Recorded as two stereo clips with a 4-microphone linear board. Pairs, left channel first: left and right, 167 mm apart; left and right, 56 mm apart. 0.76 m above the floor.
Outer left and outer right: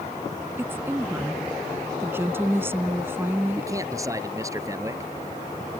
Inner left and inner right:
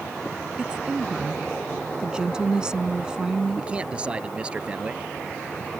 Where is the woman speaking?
15° right (ahead or behind).